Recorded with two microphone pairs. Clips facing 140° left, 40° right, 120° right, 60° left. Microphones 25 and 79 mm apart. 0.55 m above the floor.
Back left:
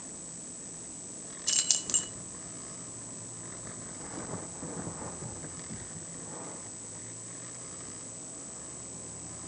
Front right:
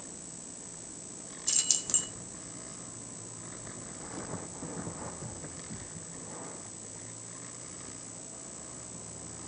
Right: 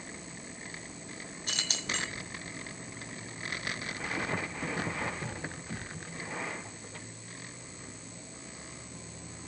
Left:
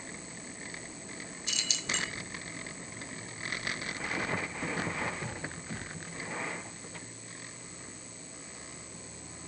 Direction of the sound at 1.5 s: 155° right.